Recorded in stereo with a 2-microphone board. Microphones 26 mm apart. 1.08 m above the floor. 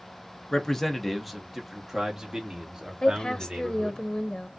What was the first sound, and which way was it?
A man speaking, 20° left (ahead or behind).